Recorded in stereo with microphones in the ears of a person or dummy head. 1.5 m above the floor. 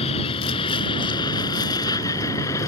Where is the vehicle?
30° left (ahead or behind); by 2.7 s 15° left (ahead or behind).